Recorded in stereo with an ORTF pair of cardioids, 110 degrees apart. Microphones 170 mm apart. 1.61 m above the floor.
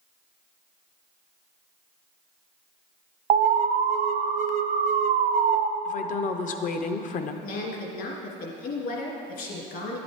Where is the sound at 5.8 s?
50° left, 0.7 m.